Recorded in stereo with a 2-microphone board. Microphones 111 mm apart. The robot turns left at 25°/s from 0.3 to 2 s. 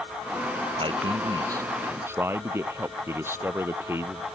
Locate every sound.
0.8 s a man speaking: 125° right; by 4.3 s 160° right